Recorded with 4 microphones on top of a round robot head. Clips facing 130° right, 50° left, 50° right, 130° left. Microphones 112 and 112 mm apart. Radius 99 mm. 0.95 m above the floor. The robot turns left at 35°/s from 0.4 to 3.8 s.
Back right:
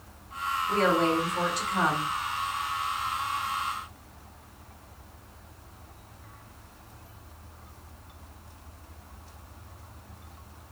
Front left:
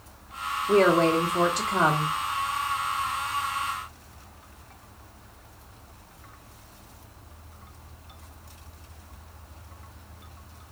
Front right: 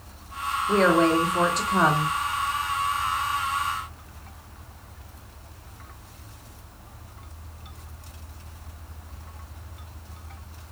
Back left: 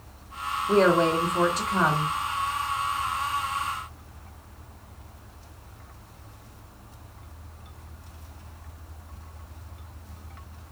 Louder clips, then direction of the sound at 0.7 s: Front left 5 dB, even; 55° left.